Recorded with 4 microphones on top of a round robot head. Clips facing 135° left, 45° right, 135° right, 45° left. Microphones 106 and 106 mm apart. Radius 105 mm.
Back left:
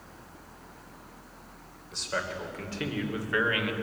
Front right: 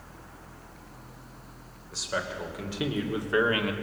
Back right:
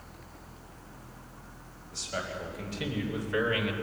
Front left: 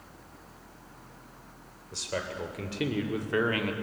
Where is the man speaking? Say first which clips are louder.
Front right 1 dB, front left 2 dB; 45° left, 3.5 m; by 3.7 s 5° left, 2.0 m.